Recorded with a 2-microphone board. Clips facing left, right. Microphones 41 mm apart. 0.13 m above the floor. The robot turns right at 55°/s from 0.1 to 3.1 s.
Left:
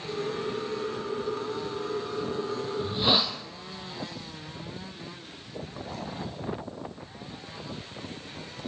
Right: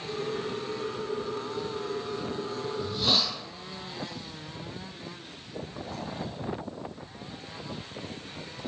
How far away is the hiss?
About 2.5 m.